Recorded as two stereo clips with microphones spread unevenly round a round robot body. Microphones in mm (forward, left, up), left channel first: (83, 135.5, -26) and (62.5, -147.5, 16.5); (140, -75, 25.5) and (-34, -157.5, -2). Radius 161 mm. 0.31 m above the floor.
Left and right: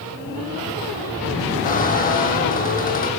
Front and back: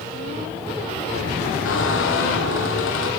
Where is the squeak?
25° left, 2 m.